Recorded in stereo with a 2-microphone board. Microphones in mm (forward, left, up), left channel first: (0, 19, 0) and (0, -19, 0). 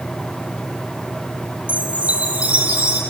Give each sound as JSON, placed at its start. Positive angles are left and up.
{"t": 1.7, "sound": "a chime", "side_deg": -30, "distance_m": 4.5}